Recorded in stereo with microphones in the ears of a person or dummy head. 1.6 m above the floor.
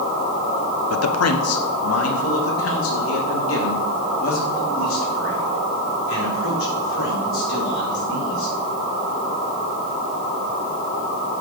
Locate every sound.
0.9 s a man speaking: 85° left, 1.0 m; by 8.5 s 65° left (ahead or behind), 6.5 m